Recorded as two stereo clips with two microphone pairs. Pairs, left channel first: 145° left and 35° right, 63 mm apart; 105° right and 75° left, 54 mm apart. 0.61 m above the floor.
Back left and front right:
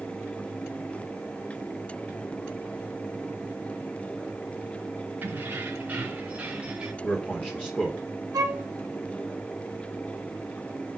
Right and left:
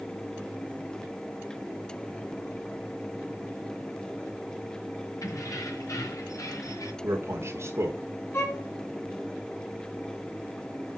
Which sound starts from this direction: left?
A man speaking, at 7.0 s.